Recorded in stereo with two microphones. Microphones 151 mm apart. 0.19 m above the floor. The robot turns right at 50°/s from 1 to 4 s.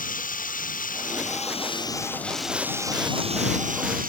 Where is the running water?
110° left; by 4.1 s 100° right.